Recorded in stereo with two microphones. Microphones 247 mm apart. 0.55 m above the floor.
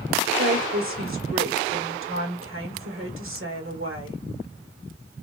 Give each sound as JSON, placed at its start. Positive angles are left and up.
{"t": 0.4, "sound": "a woman speaking", "side_deg": -55, "distance_m": 1.2}